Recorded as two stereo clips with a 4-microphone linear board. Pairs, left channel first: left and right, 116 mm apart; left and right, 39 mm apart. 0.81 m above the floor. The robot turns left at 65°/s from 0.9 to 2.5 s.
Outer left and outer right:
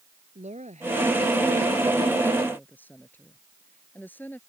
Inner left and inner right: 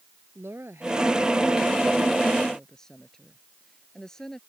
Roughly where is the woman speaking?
Right.